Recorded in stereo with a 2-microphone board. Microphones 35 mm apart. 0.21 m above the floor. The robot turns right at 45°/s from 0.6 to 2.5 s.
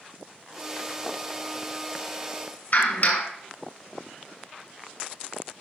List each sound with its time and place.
2.7 s a clap: 50° left (ahead or behind), 1.8 m